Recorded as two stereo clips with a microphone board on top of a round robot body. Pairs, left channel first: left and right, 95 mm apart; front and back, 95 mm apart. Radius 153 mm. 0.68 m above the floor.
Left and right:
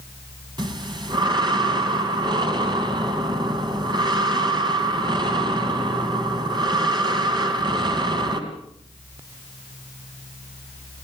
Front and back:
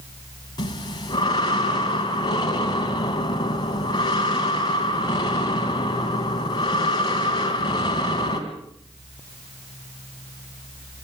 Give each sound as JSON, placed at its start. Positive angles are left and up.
{"t": 0.6, "sound": "breathing", "azimuth_deg": -50, "distance_m": 3.0}